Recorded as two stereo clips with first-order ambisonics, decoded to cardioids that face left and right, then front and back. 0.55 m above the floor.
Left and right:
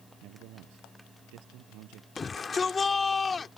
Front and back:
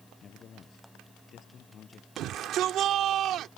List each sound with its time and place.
0.2 s a man speaking: 60° right
2.2 s a shout: 160° left